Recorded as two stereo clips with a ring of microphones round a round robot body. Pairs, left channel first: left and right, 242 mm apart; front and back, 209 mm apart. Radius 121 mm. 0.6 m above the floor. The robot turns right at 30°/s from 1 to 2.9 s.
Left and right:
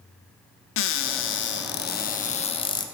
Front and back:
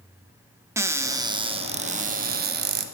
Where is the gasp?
No gasp in this recording.